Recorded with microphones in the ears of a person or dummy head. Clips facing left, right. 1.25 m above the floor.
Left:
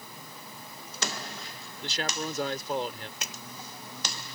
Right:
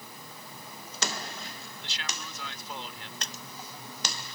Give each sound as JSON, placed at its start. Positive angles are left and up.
{"t": 1.8, "sound": "a man speaking", "side_deg": 40}
{"t": 3.2, "sound": "a splash", "side_deg": 5}